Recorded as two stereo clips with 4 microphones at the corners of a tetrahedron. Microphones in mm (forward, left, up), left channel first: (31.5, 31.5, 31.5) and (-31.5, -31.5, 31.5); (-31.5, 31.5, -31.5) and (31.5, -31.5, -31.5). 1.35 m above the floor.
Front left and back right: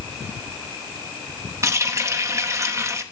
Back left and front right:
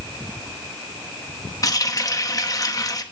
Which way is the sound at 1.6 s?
175° left.